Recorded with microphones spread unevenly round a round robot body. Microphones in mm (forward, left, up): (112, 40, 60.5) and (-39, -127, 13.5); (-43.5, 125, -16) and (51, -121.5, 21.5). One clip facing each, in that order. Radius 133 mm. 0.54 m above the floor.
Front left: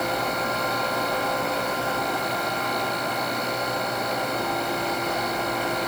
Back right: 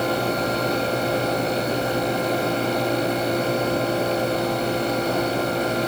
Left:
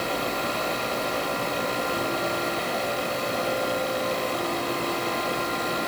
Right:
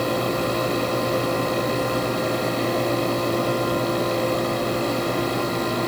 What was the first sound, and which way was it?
Only background noise.